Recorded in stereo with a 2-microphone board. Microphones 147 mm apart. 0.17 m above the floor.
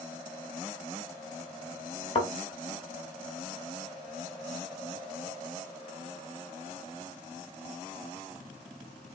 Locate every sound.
2.1 s a thud: 40° left (ahead or behind), 0.9 m